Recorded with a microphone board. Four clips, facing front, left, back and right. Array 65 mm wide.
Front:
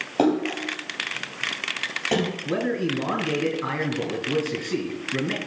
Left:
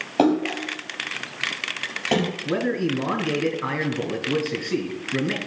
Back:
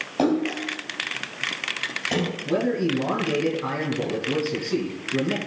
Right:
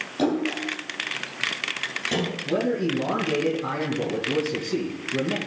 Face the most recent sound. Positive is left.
turn(degrees=65)